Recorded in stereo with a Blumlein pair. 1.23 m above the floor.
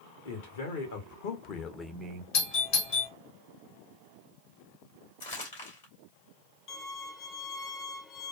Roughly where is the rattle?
I don't hear a rattle.